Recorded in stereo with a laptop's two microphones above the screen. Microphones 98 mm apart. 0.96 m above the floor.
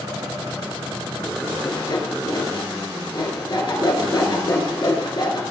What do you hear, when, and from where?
1.6 s sawing: 50° left (ahead or behind), 2 m